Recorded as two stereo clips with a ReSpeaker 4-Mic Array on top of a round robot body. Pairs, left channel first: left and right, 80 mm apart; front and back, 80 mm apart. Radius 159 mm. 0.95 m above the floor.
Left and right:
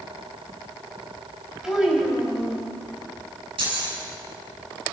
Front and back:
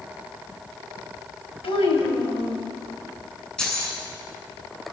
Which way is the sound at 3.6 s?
80° right.